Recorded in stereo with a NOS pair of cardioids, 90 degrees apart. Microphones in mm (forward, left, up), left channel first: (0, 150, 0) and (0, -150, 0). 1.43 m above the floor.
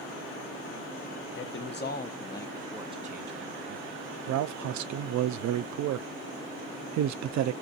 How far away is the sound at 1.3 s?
About 1.1 m.